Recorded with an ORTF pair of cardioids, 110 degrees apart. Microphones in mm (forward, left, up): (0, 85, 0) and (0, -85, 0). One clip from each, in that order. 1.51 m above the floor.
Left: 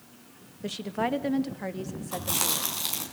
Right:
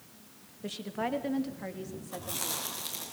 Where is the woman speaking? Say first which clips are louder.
Left 5 dB; 25° left, 2 m; by 2.7 s 40° left, 3 m.